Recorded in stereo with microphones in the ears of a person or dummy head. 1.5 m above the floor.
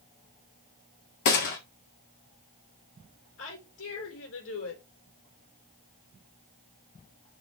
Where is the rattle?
No rattle in this recording.